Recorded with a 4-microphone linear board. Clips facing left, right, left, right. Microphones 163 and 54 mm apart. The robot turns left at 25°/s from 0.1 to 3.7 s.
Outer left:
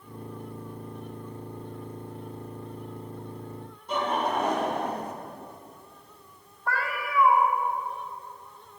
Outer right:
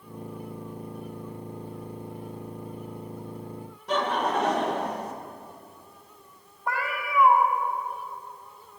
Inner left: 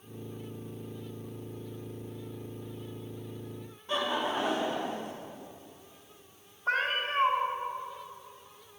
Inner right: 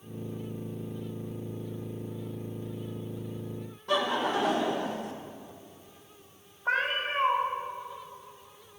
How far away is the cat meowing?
About 1.6 m.